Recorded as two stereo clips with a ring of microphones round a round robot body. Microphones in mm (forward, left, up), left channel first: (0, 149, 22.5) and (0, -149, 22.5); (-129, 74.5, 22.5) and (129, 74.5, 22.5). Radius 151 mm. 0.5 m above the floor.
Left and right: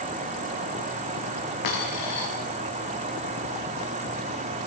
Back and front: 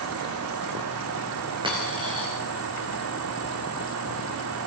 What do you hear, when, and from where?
1.6 s a dropped coin: 70° left, 9.5 m